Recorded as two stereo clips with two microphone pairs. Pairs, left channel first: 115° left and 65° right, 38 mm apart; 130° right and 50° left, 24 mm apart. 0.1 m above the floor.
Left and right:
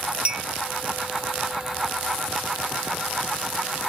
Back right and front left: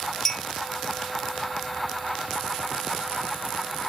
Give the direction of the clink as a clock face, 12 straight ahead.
2 o'clock.